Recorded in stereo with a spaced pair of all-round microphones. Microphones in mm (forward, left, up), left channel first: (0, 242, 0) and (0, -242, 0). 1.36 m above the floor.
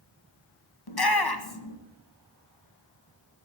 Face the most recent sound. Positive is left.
turn(degrees=50)  # may be behind; listen again after turning